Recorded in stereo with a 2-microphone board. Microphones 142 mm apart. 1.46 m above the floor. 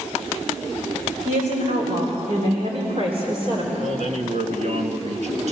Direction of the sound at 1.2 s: 60° right (ahead or behind).